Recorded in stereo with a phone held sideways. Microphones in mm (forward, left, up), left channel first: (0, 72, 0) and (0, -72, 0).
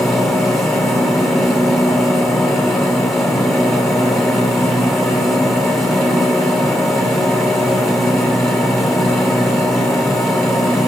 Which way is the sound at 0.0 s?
Centre (ahead or behind).